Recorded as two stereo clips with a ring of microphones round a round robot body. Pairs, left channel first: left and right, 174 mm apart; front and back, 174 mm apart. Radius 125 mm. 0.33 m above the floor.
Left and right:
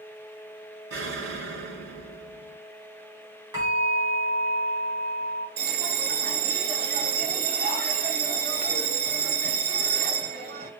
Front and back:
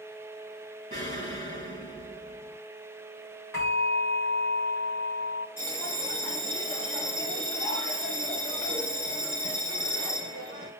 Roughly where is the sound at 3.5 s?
Ahead right.